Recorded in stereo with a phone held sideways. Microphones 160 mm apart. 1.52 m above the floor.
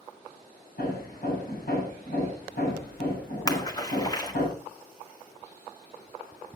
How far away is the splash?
About 1.7 m.